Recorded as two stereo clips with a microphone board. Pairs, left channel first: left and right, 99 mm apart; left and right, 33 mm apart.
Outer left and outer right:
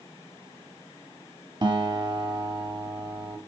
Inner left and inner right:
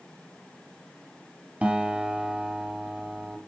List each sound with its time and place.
1.6 s a guitar: 45° right (ahead or behind), 2.5 m